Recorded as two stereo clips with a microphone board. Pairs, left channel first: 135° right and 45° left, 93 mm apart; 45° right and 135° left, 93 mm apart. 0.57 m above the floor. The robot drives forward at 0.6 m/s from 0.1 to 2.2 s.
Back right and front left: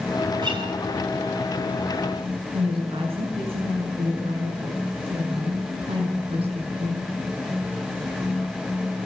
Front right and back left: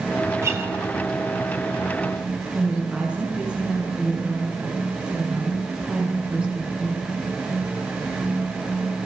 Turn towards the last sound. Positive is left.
turn(degrees=55)